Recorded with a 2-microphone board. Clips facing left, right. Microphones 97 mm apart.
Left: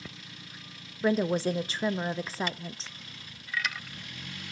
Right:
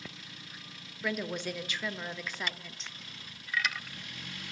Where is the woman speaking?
30° left (ahead or behind), 0.6 m.